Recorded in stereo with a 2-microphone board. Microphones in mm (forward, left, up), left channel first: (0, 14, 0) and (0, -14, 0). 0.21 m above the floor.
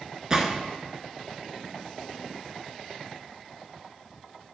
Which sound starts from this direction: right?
A gunshot, at 0.3 s.